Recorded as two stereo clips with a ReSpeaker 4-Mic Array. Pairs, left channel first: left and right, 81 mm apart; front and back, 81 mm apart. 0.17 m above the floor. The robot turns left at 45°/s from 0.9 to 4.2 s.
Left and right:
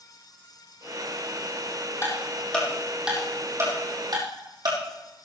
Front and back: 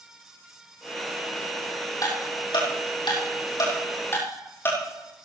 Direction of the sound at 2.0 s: 40° left.